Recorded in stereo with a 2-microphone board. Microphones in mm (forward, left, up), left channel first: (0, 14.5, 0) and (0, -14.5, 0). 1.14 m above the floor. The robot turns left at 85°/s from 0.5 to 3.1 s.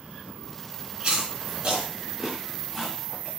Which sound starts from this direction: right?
Chewing, at 1.0 s.